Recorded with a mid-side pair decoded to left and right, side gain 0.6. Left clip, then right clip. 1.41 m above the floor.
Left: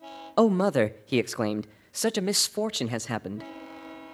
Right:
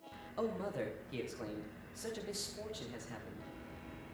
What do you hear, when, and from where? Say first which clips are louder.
0.4 s a man speaking: left 17 dB; 70° left, 0.6 m